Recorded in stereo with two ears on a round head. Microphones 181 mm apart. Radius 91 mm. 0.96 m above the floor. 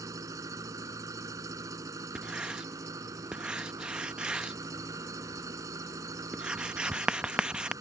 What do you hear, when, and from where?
0.0 s an engine running: 20° right (ahead or behind)
2.1 s writing: 5° right (ahead or behind)